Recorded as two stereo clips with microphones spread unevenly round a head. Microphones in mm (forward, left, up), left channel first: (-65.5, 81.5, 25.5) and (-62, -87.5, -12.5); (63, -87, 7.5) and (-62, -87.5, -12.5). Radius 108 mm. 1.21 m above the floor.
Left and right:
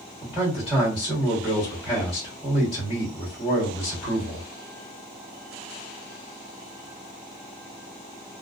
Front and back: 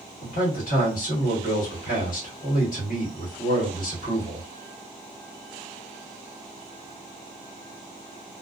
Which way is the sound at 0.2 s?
20° left.